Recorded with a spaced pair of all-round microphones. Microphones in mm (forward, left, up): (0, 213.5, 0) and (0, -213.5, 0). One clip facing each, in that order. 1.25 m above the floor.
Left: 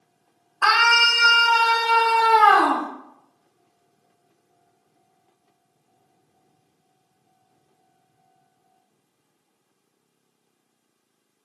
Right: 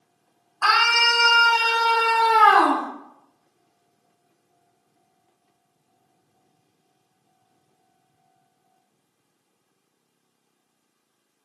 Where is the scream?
75° left (ahead or behind), 0.6 m; by 2.9 s 20° right (ahead or behind), 1.1 m.